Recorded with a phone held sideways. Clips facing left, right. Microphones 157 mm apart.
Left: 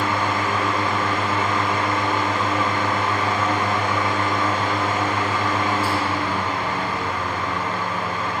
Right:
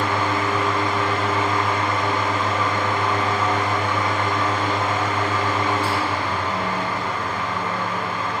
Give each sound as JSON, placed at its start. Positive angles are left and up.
{"t": 0.0, "sound": "a fan", "side_deg": 5, "distance_m": 1.7}